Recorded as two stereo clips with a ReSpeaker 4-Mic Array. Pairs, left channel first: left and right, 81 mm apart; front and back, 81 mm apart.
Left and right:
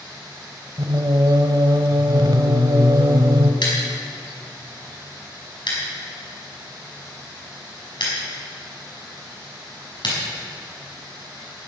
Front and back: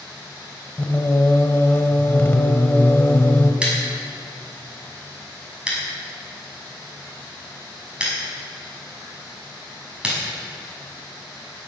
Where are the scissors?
105° left, 5.5 m.